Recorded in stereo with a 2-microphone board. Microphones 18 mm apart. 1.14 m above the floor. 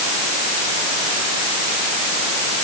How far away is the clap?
I don't hear a clap.